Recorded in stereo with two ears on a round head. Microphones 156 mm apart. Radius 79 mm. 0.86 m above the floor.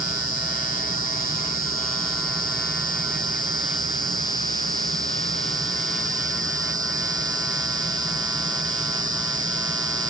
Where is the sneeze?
No sneeze in this recording.